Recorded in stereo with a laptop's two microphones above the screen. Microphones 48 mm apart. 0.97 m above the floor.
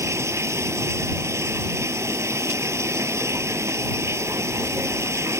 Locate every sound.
0.0 s running water: 90° right